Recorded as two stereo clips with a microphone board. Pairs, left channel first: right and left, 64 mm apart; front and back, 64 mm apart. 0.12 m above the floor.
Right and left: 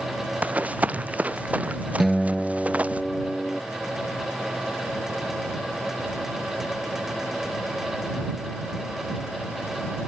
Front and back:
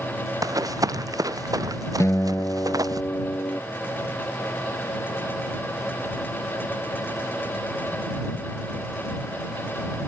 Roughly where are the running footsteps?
Behind left.